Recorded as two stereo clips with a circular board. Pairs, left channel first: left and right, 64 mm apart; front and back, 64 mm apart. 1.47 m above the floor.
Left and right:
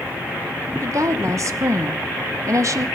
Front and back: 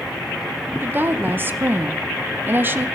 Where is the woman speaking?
125° right, 0.9 m.